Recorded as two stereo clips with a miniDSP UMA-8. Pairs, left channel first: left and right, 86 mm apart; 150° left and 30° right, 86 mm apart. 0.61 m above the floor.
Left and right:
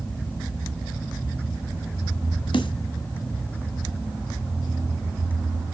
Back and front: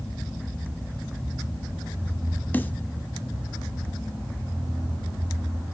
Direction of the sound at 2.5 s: 80° left.